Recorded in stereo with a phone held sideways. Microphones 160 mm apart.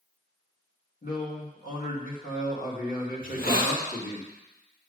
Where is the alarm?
No alarm in this recording.